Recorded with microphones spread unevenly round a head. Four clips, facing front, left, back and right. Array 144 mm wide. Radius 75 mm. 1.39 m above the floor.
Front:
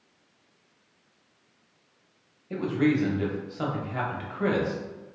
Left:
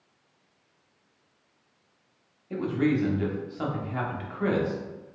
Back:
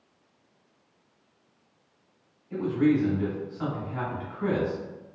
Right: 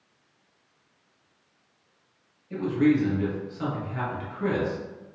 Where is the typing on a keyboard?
I don't hear typing on a keyboard.